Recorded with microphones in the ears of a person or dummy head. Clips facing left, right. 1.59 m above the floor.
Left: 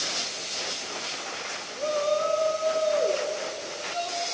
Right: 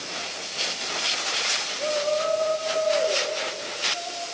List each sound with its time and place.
1.8 s a shout: 75° left (ahead or behind), 5 m